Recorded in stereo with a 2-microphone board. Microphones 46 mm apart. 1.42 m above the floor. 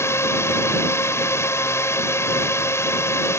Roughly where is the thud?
No thud in this recording.